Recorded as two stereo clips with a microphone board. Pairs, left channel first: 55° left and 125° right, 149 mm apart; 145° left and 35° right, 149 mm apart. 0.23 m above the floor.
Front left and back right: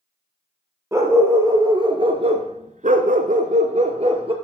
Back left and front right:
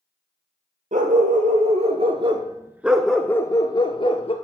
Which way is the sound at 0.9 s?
55° right.